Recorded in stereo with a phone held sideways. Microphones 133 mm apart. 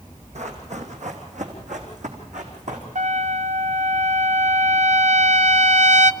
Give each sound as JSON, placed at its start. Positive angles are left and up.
{"t": 0.3, "sound": "running footsteps", "side_deg": -60, "distance_m": 3.0}
{"t": 3.0, "sound": "a trumpet", "side_deg": -65, "distance_m": 0.6}